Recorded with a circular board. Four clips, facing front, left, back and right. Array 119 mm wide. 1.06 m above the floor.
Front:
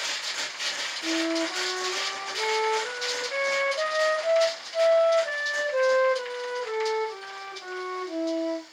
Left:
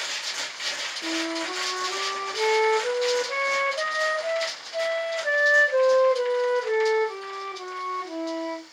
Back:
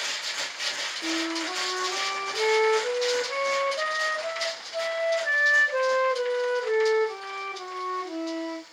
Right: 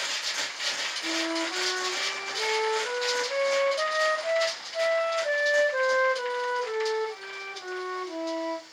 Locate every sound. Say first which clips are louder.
1.0 s a flute: left 1 dB, front 3 dB; 120° left, 2 m